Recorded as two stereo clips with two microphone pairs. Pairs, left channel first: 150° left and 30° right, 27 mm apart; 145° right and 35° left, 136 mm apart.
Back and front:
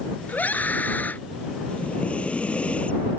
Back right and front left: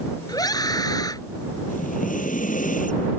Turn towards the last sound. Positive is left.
turn(degrees=-165)